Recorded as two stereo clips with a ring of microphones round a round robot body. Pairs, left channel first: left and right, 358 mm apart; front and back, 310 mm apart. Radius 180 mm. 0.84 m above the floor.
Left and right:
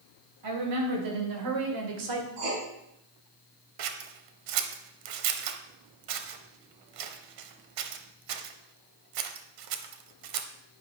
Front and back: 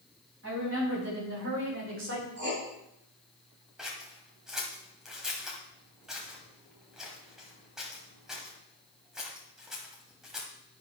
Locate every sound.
0.4 s a woman speaking: 120° right, 4 m
2.4 s writing: 120° right, 3.5 m
3.8 s scissors: 90° right, 0.9 m